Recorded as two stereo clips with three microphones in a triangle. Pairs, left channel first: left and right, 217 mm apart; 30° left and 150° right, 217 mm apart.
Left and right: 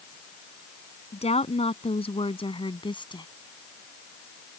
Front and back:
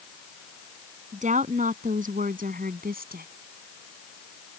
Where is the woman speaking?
150° left; by 3.3 s 160° left.